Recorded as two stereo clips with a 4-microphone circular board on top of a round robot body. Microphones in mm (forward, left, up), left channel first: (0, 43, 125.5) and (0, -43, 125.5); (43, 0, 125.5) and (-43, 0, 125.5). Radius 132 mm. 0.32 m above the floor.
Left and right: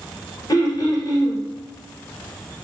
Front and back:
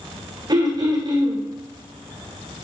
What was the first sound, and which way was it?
Throat clearing, 140° left.